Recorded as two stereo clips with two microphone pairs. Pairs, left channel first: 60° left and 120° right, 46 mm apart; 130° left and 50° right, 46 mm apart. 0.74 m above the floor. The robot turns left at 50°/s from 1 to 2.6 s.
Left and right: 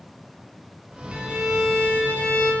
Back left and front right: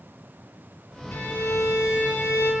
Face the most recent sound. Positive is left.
turn(degrees=100)